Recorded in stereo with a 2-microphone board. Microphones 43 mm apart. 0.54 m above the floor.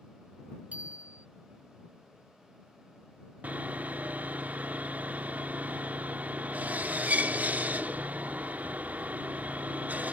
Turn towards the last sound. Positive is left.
turn(degrees=-40)  # may be behind; listen again after turning